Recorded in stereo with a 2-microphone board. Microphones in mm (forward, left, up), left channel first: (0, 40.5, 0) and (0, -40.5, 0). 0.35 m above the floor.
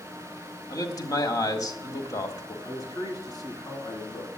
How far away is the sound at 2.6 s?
About 4.5 m.